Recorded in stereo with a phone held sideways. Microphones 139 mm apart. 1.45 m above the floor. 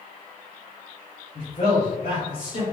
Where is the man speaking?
70° left (ahead or behind), 1.5 m; by 2.6 s 80° left, 2.5 m.